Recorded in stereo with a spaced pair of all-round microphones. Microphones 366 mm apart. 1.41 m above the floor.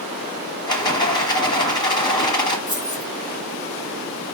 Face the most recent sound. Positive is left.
turn(degrees=-20)  # may be behind; listen again after turning